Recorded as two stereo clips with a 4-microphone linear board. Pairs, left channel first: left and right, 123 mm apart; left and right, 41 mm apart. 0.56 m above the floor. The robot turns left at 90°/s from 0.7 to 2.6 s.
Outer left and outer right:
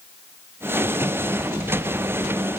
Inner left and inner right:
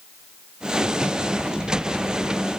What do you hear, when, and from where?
Only background noise.